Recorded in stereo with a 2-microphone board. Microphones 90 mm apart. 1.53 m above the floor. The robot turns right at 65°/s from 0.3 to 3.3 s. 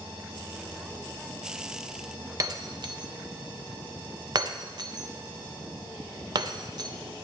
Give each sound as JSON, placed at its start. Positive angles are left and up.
{"t": 2.4, "sound": "breaking glass", "side_deg": -40, "distance_m": 0.8}